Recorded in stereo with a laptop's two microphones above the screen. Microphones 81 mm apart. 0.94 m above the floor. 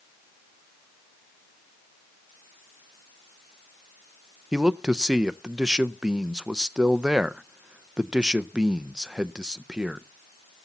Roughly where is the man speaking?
Centre.